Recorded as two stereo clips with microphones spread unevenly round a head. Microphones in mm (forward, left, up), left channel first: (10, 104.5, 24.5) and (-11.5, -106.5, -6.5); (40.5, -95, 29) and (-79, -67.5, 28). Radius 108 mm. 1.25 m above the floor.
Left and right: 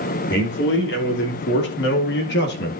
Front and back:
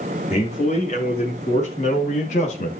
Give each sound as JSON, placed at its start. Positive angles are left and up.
{"t": 0.3, "sound": "a man speaking", "azimuth_deg": 45, "distance_m": 3.5}